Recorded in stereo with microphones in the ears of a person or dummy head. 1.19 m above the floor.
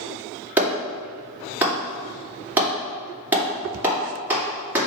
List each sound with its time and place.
0.6 s a clap: 10° right (ahead or behind), 2 m